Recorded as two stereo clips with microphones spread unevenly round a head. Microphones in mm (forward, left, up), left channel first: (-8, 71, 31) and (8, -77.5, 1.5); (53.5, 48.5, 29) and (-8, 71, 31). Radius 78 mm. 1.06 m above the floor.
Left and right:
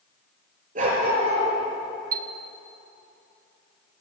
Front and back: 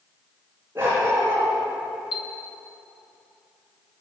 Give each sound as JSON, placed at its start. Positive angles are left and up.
{"t": 0.8, "sound": "a dog barking", "azimuth_deg": -125, "distance_m": 5.5}
{"t": 2.1, "sound": "a chime", "azimuth_deg": -45, "distance_m": 0.8}